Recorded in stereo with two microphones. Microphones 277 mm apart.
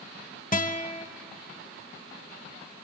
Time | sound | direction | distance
0.5 | a guitar | 30° left (ahead or behind) | 0.6 m